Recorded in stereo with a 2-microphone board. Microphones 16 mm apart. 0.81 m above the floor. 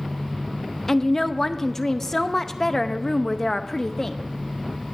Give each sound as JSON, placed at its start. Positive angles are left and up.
{"t": 0.9, "sound": "a woman speaking", "side_deg": 25, "distance_m": 0.6}